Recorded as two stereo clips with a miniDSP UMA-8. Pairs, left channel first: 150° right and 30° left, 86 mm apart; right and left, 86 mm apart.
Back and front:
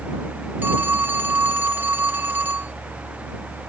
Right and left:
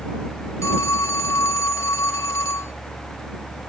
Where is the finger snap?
No finger snap in this recording.